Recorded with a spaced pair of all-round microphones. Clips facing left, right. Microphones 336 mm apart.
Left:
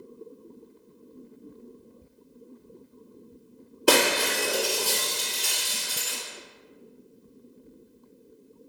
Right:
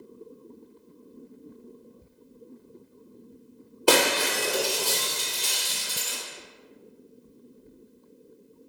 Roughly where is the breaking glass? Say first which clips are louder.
Even; left.